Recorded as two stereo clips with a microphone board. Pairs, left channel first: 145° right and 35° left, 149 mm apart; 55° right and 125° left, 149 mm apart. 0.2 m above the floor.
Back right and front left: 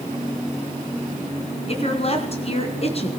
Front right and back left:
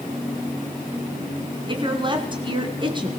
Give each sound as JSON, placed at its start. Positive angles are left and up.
{"t": 1.7, "sound": "a woman speaking", "azimuth_deg": 175, "distance_m": 3.0}